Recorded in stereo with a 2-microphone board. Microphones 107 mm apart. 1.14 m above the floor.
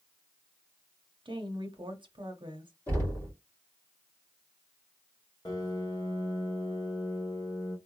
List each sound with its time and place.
1.2 s a woman speaking: 50° right (ahead or behind), 0.8 m
2.9 s knocking: 25° left (ahead or behind), 2.5 m
5.5 s a piano: 40° left (ahead or behind), 1.3 m